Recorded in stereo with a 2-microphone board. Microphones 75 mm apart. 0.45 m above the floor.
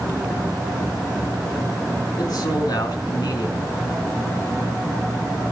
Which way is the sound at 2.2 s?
55° left (ahead or behind).